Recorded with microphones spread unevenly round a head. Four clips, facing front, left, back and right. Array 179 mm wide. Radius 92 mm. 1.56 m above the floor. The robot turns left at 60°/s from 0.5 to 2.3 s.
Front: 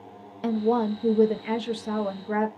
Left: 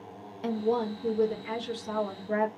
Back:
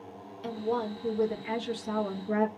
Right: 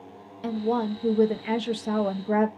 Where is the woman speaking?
5° left, 0.9 m; by 2.5 s 100° right, 0.9 m.